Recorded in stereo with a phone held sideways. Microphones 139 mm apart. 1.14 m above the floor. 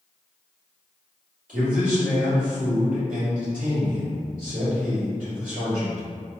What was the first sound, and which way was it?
A man speaking, 80° right.